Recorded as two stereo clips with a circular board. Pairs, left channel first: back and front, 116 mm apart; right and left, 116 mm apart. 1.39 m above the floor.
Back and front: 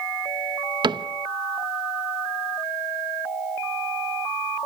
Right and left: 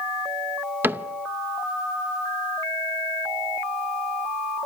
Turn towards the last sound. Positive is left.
turn(degrees=25)